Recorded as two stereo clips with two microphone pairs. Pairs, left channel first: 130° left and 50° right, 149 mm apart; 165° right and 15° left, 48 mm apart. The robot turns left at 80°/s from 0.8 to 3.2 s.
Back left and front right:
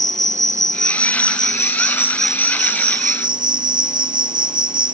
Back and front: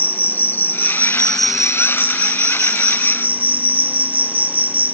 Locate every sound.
0.0 s an insect: 160° left; by 4.9 s 35° right